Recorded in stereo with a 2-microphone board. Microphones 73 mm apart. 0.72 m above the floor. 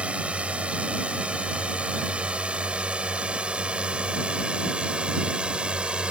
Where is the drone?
15° right (ahead or behind).